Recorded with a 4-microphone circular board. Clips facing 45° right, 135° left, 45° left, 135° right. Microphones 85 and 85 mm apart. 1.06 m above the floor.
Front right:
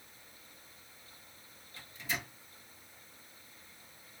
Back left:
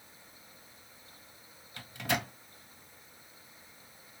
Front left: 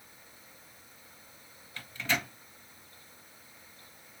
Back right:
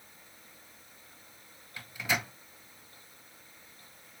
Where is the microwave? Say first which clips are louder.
Back left 7 dB, even; 150° left, 0.6 m.